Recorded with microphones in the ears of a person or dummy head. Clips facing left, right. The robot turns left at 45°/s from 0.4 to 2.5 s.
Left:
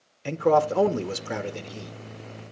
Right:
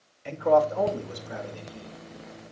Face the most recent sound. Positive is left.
turn(degrees=25)